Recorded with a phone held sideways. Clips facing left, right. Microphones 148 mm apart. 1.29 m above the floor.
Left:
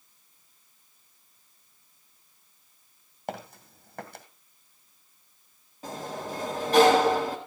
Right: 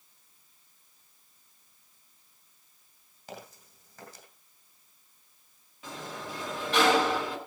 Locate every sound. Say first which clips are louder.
3.3 s footsteps: left 8 dB; 60° left (ahead or behind), 2.5 m
5.8 s a sliding door: left 5 dB; 35° left (ahead or behind), 4 m